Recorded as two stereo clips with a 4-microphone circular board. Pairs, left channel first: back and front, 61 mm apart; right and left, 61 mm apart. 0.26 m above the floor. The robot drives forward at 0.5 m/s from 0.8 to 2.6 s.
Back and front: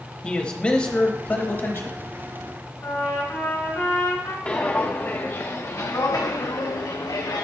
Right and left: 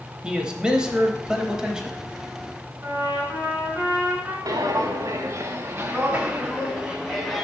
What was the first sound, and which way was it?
A man speaking, 140° left.